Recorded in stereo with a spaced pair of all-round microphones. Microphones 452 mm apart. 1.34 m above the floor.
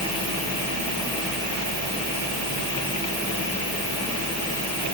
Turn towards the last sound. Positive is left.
No sound to turn to.